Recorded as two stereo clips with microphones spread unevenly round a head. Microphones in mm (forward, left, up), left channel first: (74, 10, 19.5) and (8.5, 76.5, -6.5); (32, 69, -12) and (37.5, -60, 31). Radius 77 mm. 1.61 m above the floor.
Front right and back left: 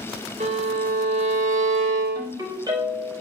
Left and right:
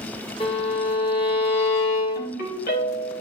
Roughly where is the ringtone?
Left.